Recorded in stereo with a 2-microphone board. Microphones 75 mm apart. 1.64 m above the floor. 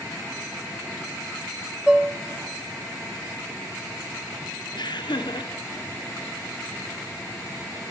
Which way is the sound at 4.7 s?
80° left.